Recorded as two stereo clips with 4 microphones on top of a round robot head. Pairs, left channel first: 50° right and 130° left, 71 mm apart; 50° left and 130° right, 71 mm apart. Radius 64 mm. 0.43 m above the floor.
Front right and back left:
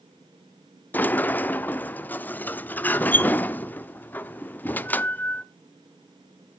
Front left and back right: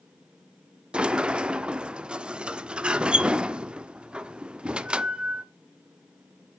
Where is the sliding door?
70° right, 0.6 m.